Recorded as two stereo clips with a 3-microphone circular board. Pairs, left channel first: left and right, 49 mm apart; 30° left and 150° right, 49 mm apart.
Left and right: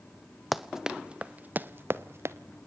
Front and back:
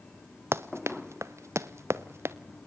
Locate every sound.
0.5 s running footsteps: straight behind, 1.3 m; by 2.4 s 120° right, 1.6 m